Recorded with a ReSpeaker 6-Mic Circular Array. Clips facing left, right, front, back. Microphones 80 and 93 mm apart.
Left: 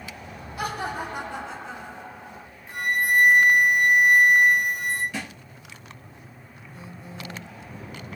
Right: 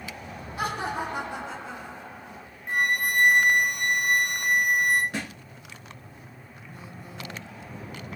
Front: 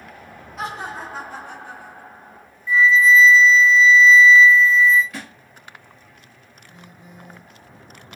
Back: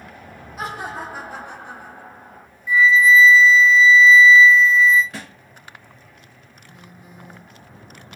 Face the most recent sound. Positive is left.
turn(degrees=-95)